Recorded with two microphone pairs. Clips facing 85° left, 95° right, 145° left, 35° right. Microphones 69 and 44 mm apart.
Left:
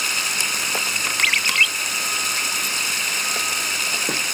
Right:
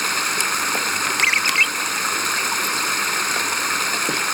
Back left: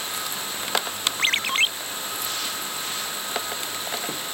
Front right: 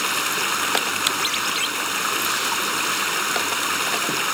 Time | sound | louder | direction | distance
0.0 | running water | right 4 dB, front right 9 dB | 50° right | ?
1.2 | a ringtone | even, back left 1 dB | 165° right | ?